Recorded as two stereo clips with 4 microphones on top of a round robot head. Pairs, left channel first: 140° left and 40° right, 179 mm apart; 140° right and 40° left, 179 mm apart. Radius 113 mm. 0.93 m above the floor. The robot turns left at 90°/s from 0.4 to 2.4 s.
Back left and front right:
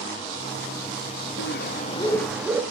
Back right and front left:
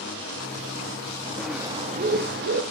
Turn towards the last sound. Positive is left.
turn(degrees=45)